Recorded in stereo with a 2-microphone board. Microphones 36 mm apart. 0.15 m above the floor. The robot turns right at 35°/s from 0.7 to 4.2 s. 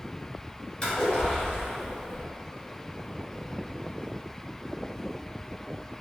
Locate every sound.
0.8 s a splash: 20° left, 1.9 m; by 2.2 s 70° left, 1.9 m